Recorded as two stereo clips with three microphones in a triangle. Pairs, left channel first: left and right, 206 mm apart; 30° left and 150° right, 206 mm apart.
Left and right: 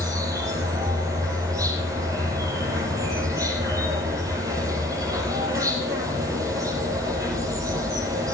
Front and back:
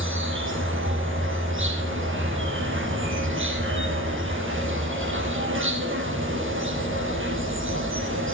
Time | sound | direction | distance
0.0 | an insect | 165° right | 5 m